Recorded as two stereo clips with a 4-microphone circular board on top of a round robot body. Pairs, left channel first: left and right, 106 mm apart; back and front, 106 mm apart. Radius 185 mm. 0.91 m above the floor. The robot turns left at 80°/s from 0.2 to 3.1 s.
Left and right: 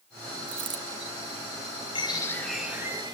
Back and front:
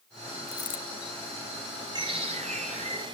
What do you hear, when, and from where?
0.5 s a dropped coin: 120° right, 1.4 m; by 0.8 s 145° right, 1.4 m
1.9 s a bird: 50° left, 5 m; by 3.1 s 45° right, 5 m